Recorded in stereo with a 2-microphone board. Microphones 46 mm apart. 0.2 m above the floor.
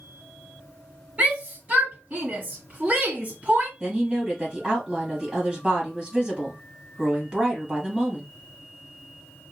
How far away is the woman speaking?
About 1.5 m.